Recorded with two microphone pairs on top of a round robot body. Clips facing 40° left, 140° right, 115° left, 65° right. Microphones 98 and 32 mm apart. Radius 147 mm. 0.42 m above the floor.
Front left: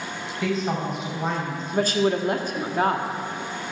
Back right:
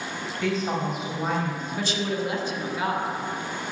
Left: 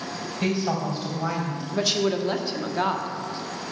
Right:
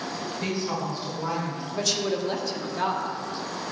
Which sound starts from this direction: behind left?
A woman speaking, at 0.4 s.